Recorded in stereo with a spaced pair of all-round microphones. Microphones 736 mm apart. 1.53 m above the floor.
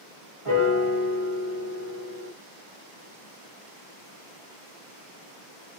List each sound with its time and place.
0.5 s a piano: 45° right (ahead or behind), 1.3 m